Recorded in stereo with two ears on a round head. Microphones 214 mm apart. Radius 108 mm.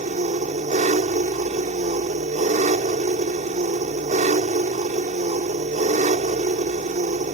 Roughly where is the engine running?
Right.